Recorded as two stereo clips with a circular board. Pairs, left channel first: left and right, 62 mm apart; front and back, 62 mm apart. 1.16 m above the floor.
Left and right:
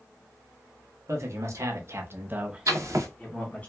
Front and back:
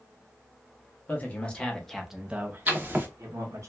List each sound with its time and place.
1.1 s a man speaking: 65° right, 1.1 m; by 3.7 s 160° left, 1.0 m
2.7 s writing: 120° right, 0.8 m